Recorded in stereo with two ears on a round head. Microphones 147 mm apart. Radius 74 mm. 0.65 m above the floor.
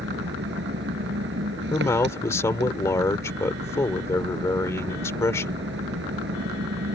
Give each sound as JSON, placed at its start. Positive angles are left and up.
{"t": 0.0, "sound": "an engine running", "side_deg": -80}
{"t": 1.7, "sound": "a man speaking", "side_deg": 20}